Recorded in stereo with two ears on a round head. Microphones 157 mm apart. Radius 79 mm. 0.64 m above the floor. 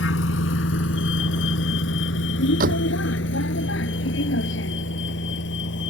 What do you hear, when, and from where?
0.0 s a vehicle: 80° left; by 5.9 s 75° left (ahead or behind)
2.6 s a door slam: 50° right (ahead or behind)